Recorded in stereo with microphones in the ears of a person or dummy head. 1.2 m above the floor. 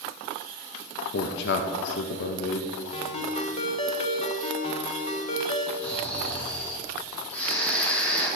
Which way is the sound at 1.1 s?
70° left (ahead or behind).